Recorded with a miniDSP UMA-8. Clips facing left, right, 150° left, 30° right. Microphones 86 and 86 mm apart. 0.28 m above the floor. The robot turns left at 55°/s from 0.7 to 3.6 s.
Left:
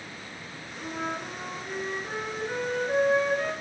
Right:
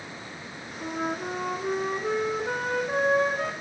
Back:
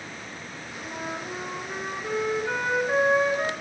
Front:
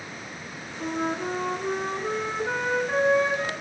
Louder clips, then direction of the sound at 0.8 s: Right 3 dB, front 7 dB; 10° right.